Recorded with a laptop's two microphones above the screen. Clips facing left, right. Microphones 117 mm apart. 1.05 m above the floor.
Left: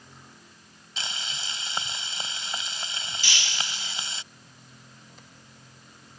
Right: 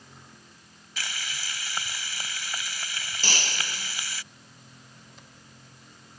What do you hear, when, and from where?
1.0 s frying: 25° left (ahead or behind)
3.2 s breaking glass: 45° right (ahead or behind)